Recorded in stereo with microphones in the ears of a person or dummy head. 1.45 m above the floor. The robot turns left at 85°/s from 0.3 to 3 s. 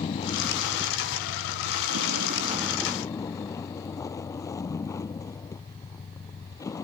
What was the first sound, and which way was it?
A vehicle, 25° left.